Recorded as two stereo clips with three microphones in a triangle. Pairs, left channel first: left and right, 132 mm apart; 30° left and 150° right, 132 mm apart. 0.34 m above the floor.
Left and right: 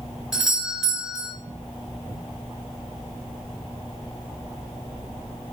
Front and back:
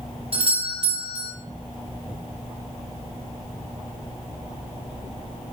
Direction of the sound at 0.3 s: 175° right.